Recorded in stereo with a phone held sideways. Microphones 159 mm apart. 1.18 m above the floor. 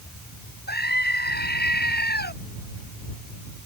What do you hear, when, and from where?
0.7 s a scream: 90° left